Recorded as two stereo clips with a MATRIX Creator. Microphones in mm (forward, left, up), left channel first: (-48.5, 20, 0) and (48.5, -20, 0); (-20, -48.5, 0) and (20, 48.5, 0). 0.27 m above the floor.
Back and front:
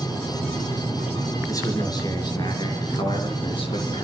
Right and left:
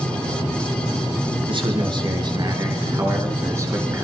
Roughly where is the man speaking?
Left.